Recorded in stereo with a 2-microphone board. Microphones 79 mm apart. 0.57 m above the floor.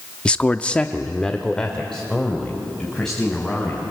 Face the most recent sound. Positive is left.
turn(degrees=5)  # may be behind; listen again after turning